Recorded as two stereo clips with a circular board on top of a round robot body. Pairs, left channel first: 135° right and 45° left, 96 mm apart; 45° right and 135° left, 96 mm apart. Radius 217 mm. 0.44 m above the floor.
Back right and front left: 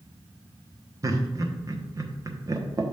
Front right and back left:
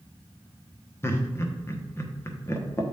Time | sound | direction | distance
1.0 | laughter | 5° left | 1.3 m